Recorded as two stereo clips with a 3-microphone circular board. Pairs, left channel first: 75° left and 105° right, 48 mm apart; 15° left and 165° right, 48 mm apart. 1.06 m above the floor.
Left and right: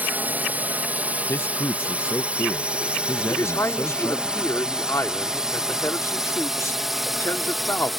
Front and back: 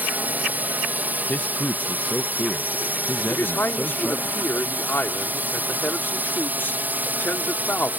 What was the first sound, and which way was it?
A drone, 135° right.